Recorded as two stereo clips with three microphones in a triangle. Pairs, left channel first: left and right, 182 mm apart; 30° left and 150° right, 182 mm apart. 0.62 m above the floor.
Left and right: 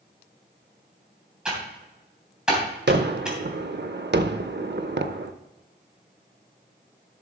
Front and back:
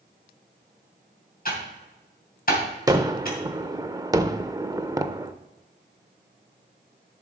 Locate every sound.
1.4 s typing on a keyboard: 5° right, 3 m
2.9 s a gunshot: 80° right, 0.6 m